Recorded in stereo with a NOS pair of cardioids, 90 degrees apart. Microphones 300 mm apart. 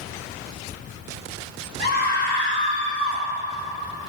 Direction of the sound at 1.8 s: 35° left.